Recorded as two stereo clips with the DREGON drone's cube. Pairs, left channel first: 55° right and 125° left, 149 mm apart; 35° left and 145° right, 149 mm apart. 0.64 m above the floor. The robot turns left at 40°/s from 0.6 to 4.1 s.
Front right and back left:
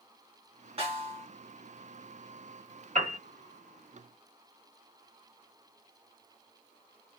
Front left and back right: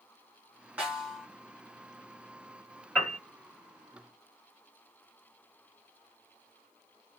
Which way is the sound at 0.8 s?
140° left.